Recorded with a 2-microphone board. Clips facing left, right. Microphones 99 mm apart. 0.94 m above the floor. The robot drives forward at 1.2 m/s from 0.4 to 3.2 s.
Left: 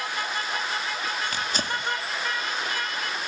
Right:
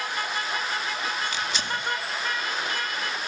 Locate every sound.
1.3 s tearing paper: 55° left (ahead or behind), 1.5 m; by 1.8 s 40° left (ahead or behind), 1.9 m